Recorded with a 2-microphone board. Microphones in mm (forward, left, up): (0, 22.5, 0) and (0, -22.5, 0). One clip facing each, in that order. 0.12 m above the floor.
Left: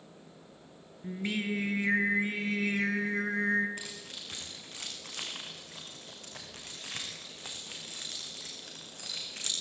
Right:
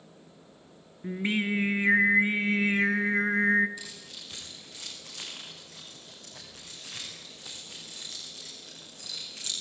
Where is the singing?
25° right (ahead or behind), 1.7 m.